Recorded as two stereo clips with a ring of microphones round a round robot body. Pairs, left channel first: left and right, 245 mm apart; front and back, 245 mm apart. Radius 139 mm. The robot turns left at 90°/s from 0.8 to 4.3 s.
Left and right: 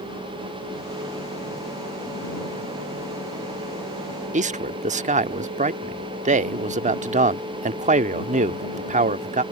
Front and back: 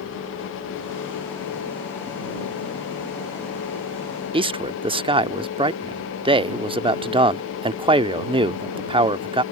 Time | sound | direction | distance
4.3 | a man speaking | 125° right | ?